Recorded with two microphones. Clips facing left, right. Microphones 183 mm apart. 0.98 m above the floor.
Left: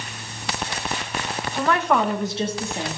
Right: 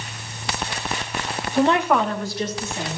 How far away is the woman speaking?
About 0.7 m.